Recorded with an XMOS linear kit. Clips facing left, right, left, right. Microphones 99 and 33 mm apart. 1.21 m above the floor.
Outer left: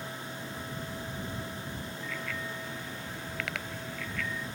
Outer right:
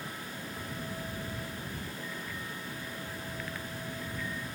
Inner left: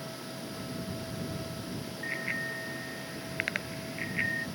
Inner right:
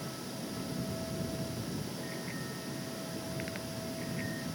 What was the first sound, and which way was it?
A bicycle bell, 80° left.